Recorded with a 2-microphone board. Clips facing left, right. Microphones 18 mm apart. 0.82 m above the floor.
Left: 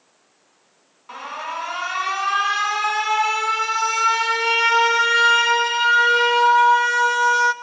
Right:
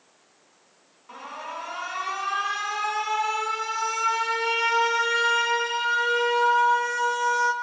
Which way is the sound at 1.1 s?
30° left (ahead or behind).